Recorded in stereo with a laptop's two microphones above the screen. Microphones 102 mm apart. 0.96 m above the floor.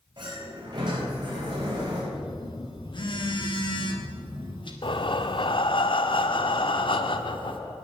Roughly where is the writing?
I don't hear writing.